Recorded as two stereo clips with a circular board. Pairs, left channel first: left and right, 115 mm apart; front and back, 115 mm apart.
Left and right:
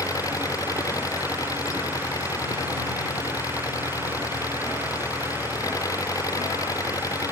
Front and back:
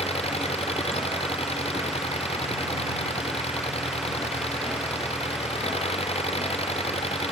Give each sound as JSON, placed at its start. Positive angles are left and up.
{"t": 0.0, "sound": "an engine running", "azimuth_deg": 30}